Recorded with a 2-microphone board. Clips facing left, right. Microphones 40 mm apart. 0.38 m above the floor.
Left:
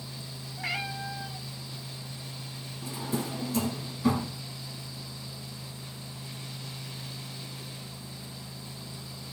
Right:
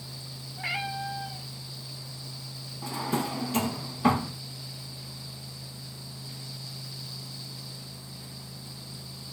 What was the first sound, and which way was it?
A cat meowing, 5° right (ahead or behind).